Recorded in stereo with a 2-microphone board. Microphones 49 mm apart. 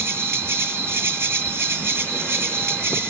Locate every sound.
0.0 s an insect: 50° right (ahead or behind), 2 m